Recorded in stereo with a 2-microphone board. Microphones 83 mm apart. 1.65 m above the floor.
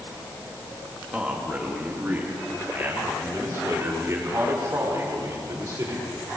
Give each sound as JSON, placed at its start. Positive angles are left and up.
{"t": 1.1, "sound": "a man speaking", "side_deg": -15, "distance_m": 3.0}